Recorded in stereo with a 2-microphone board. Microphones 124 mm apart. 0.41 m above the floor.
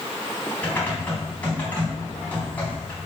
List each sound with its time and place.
0.6 s typing on a keyboard: 15° left (ahead or behind), 3.5 m